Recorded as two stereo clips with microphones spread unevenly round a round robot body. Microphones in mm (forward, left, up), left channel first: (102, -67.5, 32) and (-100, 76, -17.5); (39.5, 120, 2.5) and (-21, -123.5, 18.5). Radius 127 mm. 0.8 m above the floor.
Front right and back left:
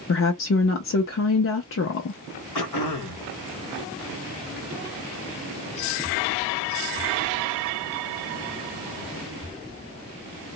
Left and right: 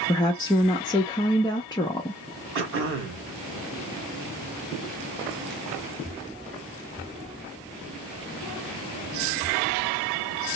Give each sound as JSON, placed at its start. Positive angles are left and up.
{"t": 0.1, "sound": "a woman speaking", "azimuth_deg": 5, "distance_m": 0.5}
{"t": 2.5, "sound": "throat clearing", "azimuth_deg": -60, "distance_m": 1.3}